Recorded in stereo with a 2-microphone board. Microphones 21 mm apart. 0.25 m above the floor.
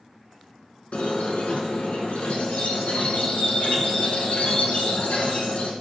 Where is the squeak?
80° left, 0.6 m.